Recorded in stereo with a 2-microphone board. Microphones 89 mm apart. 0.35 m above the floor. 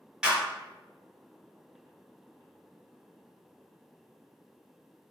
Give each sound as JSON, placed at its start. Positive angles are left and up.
{"t": 0.2, "sound": "a clap", "side_deg": -10, "distance_m": 1.5}